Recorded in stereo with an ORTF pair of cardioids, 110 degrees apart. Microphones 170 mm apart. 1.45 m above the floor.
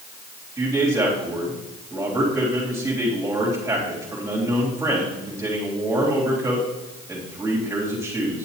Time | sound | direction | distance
0.6 | a man speaking | 20° right | 4 m